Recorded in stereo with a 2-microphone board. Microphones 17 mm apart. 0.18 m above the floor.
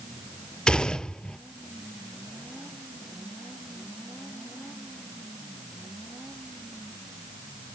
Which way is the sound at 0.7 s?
70° left (ahead or behind).